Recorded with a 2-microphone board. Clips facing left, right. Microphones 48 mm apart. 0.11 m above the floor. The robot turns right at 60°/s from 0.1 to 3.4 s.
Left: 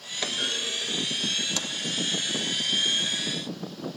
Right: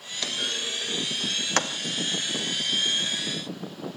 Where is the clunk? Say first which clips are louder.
Left 1 dB; 20° left (ahead or behind), 1.0 m; by 1.8 s 70° right (ahead or behind), 1.0 m.